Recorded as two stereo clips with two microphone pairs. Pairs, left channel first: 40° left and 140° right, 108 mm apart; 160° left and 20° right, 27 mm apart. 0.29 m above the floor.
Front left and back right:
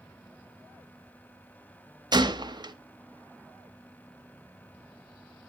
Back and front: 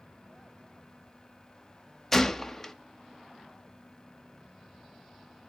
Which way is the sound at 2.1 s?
130° right.